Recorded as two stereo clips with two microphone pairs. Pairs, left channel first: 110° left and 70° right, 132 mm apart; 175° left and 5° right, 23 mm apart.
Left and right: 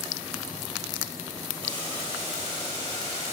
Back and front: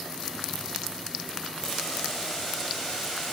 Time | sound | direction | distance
1.6 | boiling | 95° right | 2 m